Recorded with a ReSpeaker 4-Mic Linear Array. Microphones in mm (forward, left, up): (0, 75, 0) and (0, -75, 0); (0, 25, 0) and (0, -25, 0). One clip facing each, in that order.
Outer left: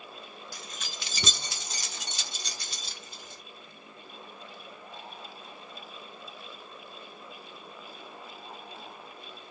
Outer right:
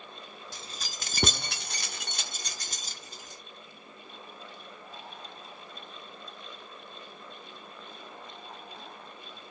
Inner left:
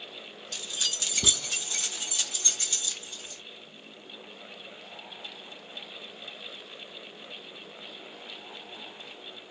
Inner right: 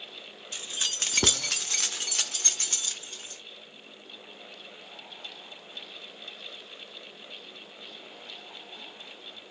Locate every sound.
0.5 s keys jangling: 25° right (ahead or behind), 0.6 m; by 3.4 s 40° right (ahead or behind), 1.3 m